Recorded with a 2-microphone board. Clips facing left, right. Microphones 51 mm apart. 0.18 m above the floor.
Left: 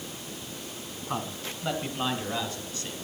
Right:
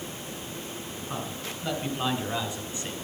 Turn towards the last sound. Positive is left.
turn(degrees=-25)  # may be behind; listen again after turning